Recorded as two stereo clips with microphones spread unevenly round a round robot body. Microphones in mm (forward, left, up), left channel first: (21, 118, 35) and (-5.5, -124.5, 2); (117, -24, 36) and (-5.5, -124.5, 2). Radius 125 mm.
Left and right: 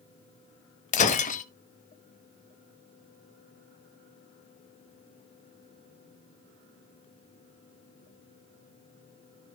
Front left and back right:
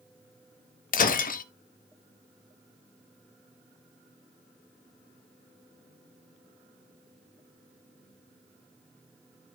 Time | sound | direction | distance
0.9 | breaking glass | 30° left | 0.8 m